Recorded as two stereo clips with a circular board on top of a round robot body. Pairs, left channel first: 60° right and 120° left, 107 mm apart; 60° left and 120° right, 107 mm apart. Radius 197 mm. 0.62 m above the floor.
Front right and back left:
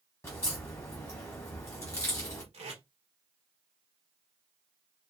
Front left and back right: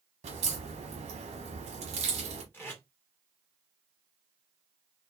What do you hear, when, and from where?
0.2 s a crack: 125° right, 1.0 m
2.5 s tape being pulled: 130° left, 2 m